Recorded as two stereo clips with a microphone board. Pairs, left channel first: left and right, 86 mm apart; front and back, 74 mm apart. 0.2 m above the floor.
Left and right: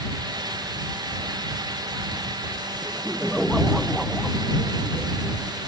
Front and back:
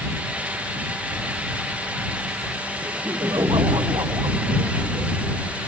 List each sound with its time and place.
2.8 s laughter: straight behind